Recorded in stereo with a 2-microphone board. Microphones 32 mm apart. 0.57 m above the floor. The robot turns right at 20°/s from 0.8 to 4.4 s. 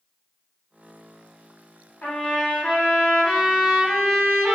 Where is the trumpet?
115° left, 1.7 m; by 4.6 s 165° left, 1.7 m.